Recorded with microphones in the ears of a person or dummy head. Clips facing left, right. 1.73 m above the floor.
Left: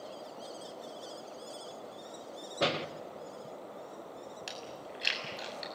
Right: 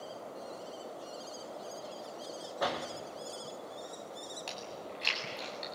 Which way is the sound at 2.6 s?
30° left (ahead or behind).